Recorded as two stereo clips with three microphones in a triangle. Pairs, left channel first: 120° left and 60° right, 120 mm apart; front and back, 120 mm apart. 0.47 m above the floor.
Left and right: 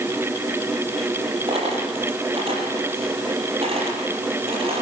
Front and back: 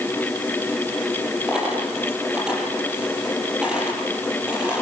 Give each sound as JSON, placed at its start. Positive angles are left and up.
{"t": 1.5, "sound": "a dropped coin", "azimuth_deg": -95, "distance_m": 6.5}